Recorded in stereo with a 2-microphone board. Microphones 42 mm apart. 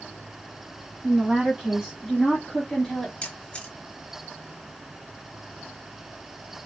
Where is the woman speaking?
20° right (ahead or behind), 2.5 m; by 3.1 s 20° left (ahead or behind), 1.6 m.